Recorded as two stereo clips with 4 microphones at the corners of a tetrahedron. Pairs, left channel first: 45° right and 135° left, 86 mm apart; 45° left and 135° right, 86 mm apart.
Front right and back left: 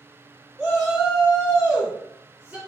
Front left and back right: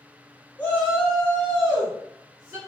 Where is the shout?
85° left, 1.7 m; by 2.6 s 170° right, 1.9 m.